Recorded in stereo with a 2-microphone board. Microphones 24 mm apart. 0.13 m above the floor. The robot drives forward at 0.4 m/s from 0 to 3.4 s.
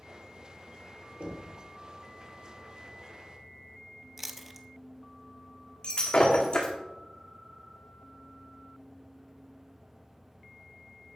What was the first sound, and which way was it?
Knocking, 55° right (ahead or behind).